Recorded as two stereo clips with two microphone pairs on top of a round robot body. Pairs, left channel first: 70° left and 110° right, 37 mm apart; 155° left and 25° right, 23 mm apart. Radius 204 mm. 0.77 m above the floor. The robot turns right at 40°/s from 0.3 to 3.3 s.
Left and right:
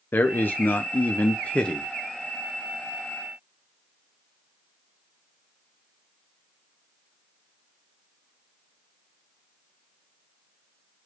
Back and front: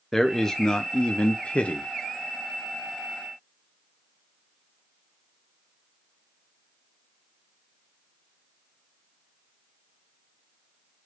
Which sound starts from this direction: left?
A man speaking, at 0.1 s.